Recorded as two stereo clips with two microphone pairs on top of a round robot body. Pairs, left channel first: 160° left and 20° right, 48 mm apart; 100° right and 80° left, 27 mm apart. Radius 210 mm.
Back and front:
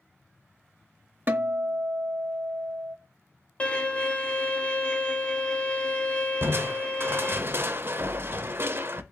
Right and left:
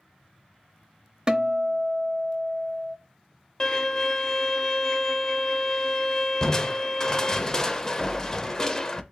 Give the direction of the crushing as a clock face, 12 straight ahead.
1 o'clock.